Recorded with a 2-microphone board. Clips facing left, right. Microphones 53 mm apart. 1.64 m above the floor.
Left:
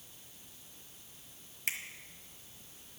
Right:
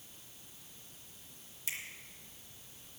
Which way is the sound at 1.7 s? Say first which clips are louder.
Left 5 dB; 50° left (ahead or behind).